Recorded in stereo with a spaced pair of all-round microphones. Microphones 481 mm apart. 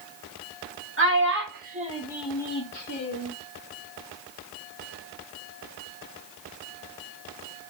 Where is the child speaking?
25° right (ahead or behind), 1.3 m; by 3.3 s 30° left (ahead or behind), 1.0 m.